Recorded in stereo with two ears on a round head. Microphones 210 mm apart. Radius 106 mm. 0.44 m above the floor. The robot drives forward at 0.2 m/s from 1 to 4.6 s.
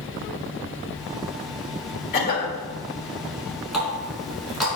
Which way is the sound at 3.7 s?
Centre (ahead or behind).